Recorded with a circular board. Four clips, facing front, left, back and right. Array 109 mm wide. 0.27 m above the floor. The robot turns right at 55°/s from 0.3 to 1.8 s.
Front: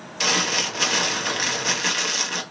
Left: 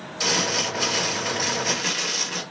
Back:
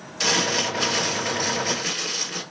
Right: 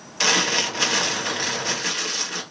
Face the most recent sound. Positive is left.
turn(degrees=10)